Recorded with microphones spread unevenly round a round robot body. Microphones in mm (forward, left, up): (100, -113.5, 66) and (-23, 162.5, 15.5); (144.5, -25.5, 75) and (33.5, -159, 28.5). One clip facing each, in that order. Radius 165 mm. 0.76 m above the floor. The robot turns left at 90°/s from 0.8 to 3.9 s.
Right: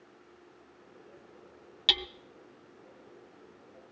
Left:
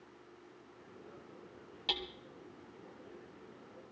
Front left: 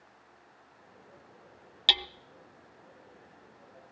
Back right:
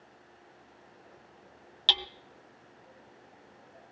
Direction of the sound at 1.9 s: 15° right.